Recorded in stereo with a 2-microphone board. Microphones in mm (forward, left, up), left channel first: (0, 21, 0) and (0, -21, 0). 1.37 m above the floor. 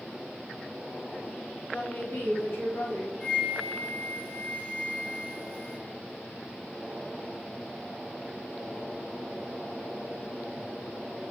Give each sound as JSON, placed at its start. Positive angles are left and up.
{"t": 1.7, "sound": "a woman speaking", "side_deg": 70, "distance_m": 2.5}
{"t": 3.2, "sound": "a flute", "side_deg": 25, "distance_m": 2.5}